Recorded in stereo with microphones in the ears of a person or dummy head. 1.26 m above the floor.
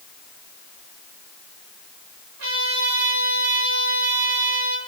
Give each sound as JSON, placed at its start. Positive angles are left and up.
{"t": 2.4, "sound": "a trumpet", "side_deg": -70, "distance_m": 3.0}